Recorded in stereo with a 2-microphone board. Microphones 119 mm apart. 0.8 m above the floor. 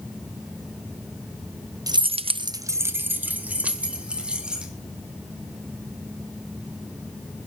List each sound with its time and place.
1.9 s keys jangling: 30° right (ahead or behind), 0.7 m; by 4.7 s 10° right (ahead or behind), 4 m